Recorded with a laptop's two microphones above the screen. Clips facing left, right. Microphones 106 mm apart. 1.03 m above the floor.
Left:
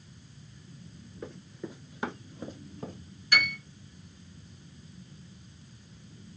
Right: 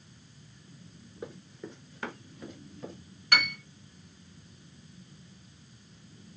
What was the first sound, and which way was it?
Running footsteps, 20° right (ahead or behind).